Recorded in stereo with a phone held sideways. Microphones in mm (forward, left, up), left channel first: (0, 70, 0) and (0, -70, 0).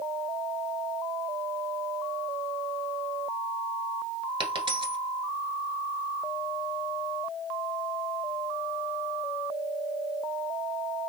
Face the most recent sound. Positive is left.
turn(degrees=-35)  # may be behind; listen again after turning